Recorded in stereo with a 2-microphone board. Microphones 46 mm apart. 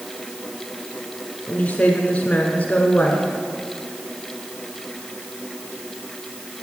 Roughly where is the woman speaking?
Left.